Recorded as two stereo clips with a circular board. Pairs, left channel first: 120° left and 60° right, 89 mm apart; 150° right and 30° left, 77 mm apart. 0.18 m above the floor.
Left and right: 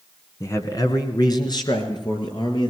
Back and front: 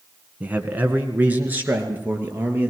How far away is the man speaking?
About 2 m.